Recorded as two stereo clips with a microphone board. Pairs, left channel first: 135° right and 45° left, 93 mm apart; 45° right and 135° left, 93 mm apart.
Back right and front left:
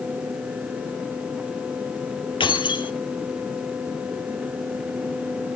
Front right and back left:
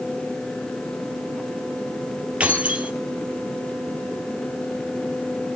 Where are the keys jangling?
150° right, 2 m.